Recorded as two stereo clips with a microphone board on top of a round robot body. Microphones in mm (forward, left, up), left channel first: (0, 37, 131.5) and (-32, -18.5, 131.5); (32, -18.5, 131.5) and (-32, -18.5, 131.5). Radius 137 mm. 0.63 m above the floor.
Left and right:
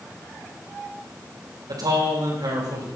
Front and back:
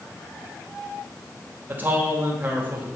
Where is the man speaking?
120° right, 3.5 m.